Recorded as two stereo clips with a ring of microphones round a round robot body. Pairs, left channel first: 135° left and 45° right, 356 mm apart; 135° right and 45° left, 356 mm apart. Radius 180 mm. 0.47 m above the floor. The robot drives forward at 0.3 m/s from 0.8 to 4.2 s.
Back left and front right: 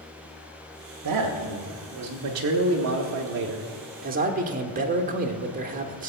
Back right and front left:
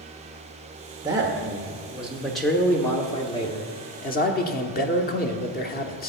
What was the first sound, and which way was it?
A man speaking, 30° right.